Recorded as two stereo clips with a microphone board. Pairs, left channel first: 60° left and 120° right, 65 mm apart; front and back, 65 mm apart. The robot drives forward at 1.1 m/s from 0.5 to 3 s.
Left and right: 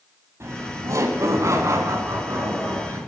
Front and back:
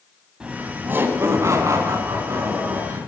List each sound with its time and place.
0.4 s laughter: 110° right, 1.3 m; by 3.0 s 165° right, 3.5 m